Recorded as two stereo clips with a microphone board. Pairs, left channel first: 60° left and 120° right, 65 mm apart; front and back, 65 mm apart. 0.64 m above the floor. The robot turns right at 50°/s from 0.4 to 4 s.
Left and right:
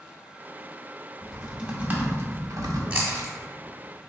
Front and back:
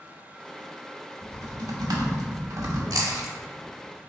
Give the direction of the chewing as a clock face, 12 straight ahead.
6 o'clock.